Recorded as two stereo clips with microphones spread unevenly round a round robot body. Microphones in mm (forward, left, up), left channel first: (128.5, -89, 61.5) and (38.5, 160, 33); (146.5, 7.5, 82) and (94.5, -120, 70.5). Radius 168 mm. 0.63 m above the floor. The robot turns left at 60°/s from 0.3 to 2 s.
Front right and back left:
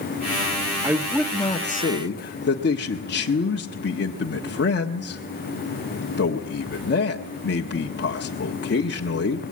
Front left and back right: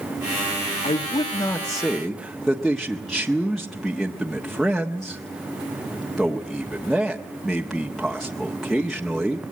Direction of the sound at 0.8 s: 45° left.